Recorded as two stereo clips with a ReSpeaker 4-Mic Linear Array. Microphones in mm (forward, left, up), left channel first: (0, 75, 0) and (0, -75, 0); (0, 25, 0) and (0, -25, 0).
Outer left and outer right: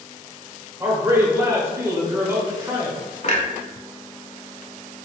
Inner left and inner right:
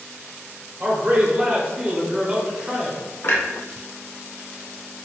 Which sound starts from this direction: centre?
A man speaking, at 0.8 s.